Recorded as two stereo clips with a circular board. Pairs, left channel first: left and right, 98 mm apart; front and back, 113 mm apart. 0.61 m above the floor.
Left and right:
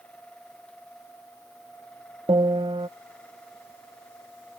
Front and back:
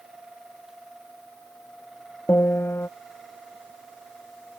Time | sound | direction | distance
2.3 | a piano | 65° right | ?